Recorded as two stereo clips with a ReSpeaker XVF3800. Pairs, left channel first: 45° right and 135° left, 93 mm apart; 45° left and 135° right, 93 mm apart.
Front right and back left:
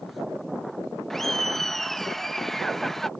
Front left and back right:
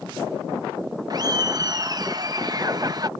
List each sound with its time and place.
1.1 s laughter: 130° right